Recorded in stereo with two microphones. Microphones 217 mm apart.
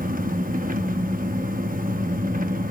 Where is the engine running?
40° right (ahead or behind), 0.8 m.